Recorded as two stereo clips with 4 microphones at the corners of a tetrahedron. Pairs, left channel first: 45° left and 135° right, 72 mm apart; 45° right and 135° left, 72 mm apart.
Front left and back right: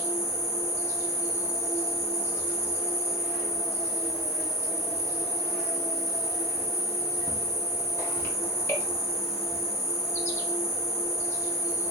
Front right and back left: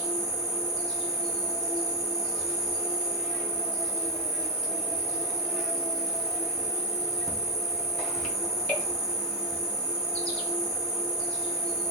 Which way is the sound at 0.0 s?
15° left.